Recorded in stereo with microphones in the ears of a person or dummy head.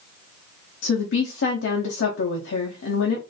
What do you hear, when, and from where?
0.8 s a woman speaking: 65° left (ahead or behind), 0.5 m